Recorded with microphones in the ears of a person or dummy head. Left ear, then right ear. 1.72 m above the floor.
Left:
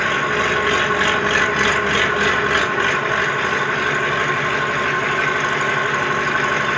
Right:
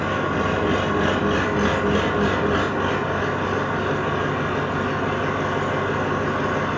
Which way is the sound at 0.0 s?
75° left (ahead or behind).